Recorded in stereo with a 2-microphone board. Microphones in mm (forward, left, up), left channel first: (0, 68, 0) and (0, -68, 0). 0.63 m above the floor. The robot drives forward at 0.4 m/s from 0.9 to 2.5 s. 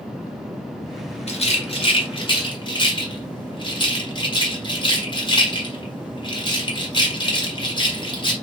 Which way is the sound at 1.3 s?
50° left (ahead or behind).